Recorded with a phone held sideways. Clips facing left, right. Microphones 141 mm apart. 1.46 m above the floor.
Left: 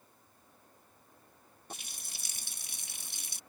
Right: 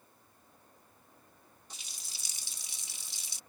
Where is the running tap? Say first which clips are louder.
Left 8 dB; 55° left (ahead or behind).